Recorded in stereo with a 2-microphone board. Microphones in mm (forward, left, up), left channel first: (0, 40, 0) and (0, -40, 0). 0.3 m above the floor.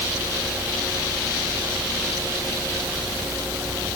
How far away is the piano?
No piano in this recording.